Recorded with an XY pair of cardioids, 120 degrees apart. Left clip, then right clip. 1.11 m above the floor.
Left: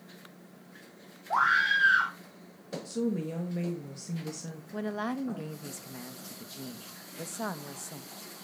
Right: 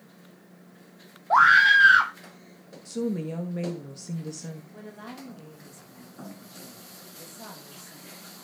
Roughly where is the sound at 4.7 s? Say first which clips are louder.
Left 8 dB; ahead left.